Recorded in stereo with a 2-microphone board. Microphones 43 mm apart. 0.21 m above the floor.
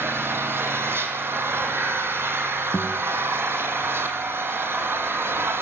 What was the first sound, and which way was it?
An engine running, 60° right (ahead or behind).